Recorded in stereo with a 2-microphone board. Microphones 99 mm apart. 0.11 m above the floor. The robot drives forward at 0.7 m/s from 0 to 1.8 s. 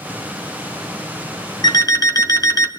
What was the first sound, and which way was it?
An alarm clock, 45° left (ahead or behind).